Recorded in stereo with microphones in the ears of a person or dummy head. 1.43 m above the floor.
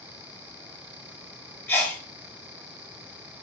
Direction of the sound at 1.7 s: 10° left (ahead or behind).